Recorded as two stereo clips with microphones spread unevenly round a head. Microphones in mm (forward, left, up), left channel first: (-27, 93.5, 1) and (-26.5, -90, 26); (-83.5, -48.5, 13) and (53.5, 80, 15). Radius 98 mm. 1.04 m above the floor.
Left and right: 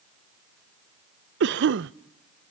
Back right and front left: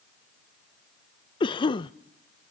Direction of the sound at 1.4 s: 75° right.